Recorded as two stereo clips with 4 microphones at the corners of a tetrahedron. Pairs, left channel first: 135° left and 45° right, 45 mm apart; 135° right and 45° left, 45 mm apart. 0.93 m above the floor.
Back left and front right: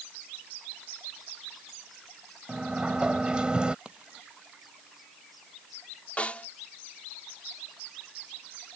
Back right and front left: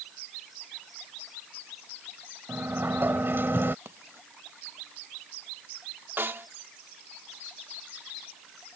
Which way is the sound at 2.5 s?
20° left.